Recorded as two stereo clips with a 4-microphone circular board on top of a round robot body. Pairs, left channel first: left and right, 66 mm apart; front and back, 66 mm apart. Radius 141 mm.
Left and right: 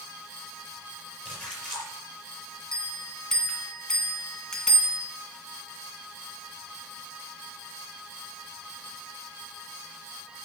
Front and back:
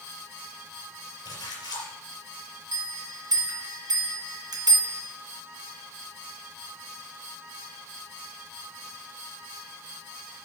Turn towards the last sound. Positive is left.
turn(degrees=170)